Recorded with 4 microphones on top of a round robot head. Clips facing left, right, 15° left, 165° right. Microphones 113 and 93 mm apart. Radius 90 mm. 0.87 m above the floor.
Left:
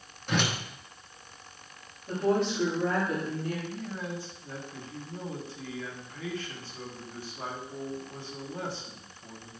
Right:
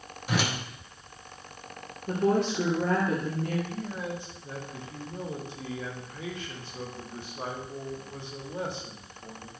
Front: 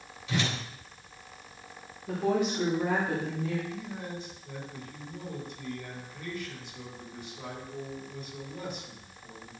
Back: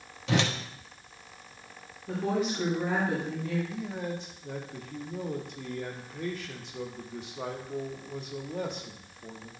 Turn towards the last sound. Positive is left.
turn(degrees=-160)